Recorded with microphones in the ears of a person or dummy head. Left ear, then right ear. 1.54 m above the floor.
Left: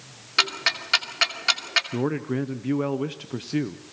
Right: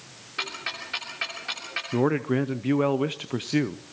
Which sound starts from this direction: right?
A man speaking, at 1.9 s.